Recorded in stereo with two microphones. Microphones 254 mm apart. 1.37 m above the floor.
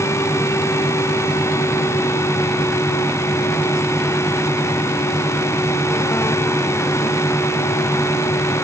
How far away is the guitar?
No guitar in this recording.